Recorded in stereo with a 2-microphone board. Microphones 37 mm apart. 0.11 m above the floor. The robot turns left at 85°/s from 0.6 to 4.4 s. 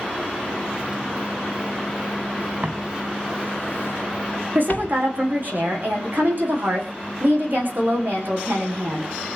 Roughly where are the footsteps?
Right.